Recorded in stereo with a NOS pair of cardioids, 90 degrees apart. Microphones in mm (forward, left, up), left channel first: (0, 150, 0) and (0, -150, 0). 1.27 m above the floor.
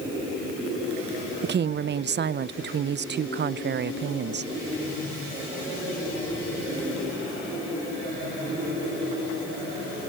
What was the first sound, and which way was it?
A woman speaking, 35° right.